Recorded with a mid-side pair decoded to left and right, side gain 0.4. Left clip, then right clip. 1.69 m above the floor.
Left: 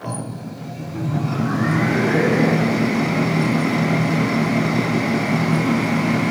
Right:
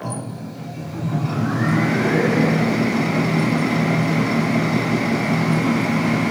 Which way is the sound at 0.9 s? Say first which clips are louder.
Left 1 dB; 20° left.